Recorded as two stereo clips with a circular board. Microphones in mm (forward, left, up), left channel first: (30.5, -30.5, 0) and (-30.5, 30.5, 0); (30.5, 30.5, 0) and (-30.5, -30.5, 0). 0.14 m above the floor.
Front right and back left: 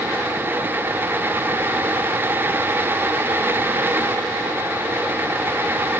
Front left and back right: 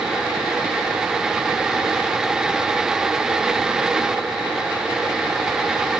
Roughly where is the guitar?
No guitar in this recording.